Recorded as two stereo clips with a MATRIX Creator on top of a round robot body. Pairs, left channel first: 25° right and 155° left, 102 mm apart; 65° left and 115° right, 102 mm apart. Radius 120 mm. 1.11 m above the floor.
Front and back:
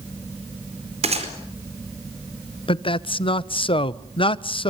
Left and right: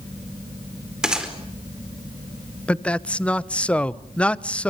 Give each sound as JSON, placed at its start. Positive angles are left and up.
{"t": 1.0, "sound": "a gunshot", "azimuth_deg": 165, "distance_m": 4.5}
{"t": 2.7, "sound": "a man speaking", "azimuth_deg": -10, "distance_m": 1.1}